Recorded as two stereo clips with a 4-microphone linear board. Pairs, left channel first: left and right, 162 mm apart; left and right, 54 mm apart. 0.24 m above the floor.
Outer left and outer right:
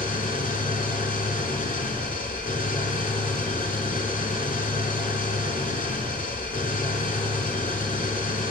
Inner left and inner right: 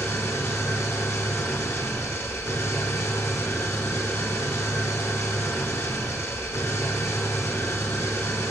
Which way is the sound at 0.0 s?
55° left (ahead or behind).